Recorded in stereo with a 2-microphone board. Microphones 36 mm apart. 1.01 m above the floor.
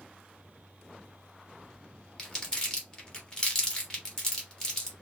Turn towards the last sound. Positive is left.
turn(degrees=25)  # may be behind; listen again after turning